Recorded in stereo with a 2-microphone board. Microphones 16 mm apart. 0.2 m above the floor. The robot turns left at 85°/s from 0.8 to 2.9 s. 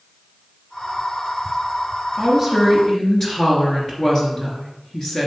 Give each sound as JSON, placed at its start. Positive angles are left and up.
{"t": 2.2, "sound": "a woman speaking", "azimuth_deg": -145, "distance_m": 2.5}